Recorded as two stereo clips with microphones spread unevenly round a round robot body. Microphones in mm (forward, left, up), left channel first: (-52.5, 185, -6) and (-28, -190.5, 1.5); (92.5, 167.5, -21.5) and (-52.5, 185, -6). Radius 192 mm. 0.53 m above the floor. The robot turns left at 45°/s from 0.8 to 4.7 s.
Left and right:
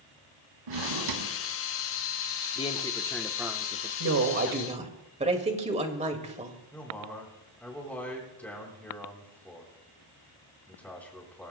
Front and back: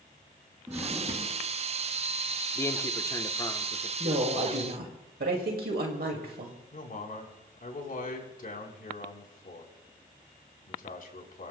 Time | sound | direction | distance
0.7 | a drawer | 105° right | 3 m
2.5 | a man speaking | 35° left | 1.0 m
4.0 | a woman speaking | 130° right | 2.5 m
6.7 | a man speaking | 10° left | 4.5 m